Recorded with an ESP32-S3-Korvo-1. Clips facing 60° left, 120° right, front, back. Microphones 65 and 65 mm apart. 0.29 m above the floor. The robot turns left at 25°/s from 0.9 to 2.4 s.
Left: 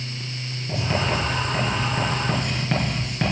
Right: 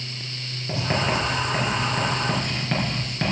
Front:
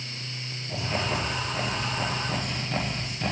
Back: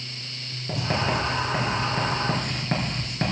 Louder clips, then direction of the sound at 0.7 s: Even, back 4 dB; 175° right.